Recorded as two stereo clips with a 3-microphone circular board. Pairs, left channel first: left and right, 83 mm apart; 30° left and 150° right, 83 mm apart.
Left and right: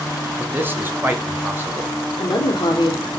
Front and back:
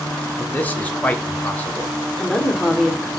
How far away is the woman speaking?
About 1.0 m.